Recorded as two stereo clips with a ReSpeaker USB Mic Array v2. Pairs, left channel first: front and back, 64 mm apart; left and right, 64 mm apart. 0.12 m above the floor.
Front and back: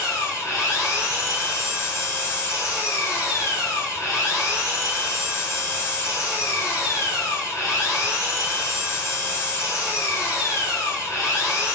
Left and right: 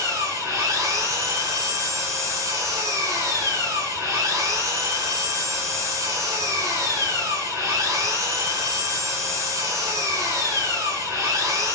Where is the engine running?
55° right, 8 m.